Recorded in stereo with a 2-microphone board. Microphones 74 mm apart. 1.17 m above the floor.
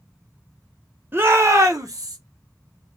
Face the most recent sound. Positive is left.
turn(degrees=-65)  # may be behind; listen again after turning